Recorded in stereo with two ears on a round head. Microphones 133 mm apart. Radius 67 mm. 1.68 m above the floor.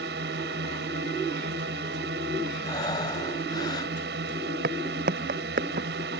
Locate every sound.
0.0 s a drone: 75° right (ahead or behind)
2.6 s breathing: 30° left (ahead or behind)
4.6 s footsteps: 65° right (ahead or behind); by 5.9 s 55° right (ahead or behind)